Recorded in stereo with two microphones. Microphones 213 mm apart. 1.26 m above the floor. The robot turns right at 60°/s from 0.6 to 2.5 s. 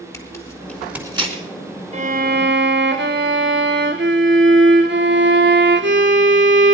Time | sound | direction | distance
0.1 | tearing paper | 15° left (ahead or behind) | 3.5 m
1.9 | a violin | 145° right | 1.3 m